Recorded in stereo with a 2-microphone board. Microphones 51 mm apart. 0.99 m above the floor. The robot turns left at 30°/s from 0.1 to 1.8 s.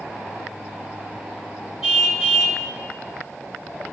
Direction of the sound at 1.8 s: 5° right (ahead or behind).